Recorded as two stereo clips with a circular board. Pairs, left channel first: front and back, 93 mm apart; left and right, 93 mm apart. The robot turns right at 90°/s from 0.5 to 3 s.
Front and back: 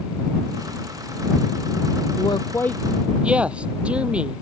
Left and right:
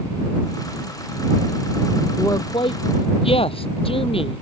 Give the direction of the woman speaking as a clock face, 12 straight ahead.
11 o'clock.